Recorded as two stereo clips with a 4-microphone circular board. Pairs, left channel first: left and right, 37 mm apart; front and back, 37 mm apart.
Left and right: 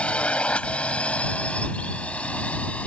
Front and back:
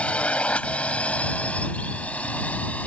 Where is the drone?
45° left; by 2.9 s 40° left.